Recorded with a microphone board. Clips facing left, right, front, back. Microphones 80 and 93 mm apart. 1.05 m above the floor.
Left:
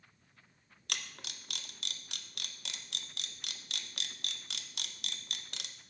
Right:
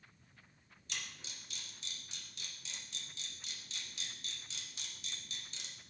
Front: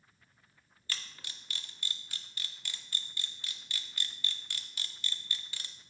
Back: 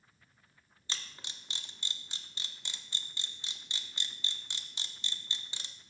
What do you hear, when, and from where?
0.9 s a camera shutter: 110° left, 0.5 m